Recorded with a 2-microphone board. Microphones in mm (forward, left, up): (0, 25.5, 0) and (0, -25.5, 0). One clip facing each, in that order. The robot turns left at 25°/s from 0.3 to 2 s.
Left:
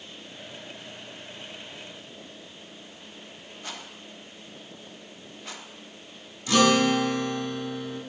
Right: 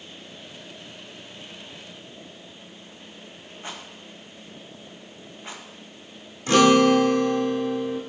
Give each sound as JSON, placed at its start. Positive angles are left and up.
{"t": 3.6, "sound": "a rattle", "side_deg": -25, "distance_m": 1.6}
{"t": 6.5, "sound": "a guitar", "side_deg": -40, "distance_m": 1.6}